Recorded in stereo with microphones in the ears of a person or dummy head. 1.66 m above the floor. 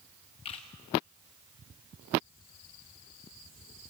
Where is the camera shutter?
40° left (ahead or behind), 1.7 m.